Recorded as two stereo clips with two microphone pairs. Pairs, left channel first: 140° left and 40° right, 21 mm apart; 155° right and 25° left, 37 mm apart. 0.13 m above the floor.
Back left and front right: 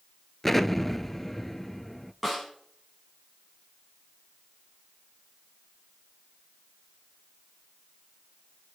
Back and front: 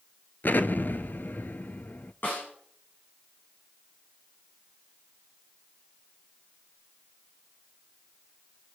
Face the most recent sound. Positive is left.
turn(degrees=-125)